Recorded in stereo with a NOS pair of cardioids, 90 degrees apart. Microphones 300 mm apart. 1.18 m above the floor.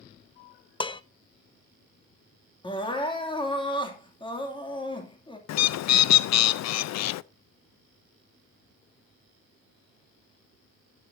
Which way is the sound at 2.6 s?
15° left.